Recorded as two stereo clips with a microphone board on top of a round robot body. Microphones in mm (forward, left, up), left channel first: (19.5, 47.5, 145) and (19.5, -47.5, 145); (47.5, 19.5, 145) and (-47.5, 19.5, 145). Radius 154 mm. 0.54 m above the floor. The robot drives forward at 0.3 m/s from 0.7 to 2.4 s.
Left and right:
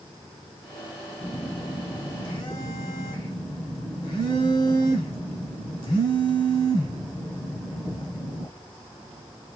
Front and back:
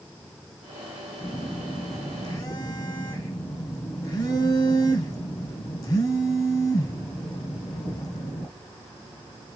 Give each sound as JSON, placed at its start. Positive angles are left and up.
{"t": 1.2, "sound": "a phone buzzing", "azimuth_deg": 40, "distance_m": 1.4}